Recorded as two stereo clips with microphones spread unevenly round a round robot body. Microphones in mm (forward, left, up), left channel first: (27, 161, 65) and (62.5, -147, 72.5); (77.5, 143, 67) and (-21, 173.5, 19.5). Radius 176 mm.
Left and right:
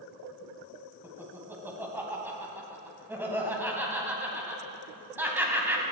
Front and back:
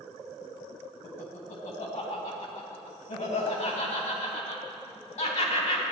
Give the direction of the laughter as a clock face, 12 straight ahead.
12 o'clock.